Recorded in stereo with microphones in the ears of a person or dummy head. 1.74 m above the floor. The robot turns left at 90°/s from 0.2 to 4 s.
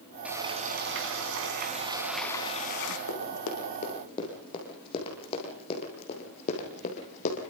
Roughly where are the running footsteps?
Left.